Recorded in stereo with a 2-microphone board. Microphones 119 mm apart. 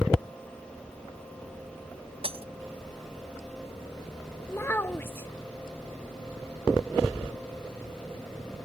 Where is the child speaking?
20° left (ahead or behind).